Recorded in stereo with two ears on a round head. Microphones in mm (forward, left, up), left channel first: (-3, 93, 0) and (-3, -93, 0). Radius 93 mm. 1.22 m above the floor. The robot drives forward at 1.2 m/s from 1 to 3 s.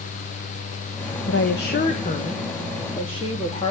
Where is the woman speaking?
60° left (ahead or behind), 1.4 m; by 3.7 s 25° left (ahead or behind), 3 m.